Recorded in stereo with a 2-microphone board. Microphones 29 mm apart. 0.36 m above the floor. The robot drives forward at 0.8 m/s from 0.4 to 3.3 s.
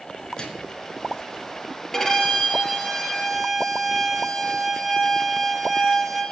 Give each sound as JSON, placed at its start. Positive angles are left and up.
{"t": 0.4, "sound": "a microwave", "side_deg": 25, "distance_m": 4.5}
{"t": 1.9, "sound": "a violin", "side_deg": 15, "distance_m": 5.0}